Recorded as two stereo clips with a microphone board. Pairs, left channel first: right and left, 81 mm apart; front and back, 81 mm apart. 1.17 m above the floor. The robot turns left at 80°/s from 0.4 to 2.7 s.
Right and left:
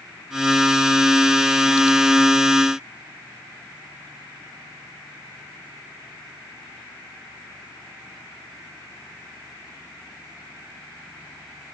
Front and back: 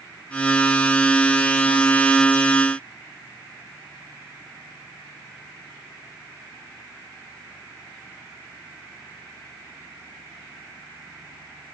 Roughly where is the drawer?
No drawer in this recording.